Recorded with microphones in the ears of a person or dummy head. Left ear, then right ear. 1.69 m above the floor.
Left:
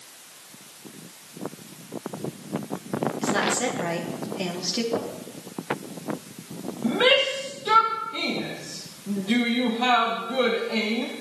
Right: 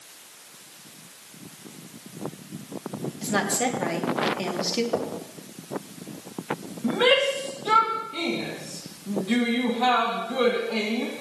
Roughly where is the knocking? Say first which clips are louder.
Right 1 dB; right.